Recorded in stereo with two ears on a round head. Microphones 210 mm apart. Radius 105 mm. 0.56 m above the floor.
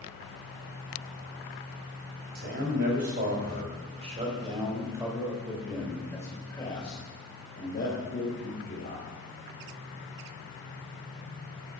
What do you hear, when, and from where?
2.4 s a man speaking: 50° right (ahead or behind), 3.5 m; by 9.1 s 55° left (ahead or behind), 3 m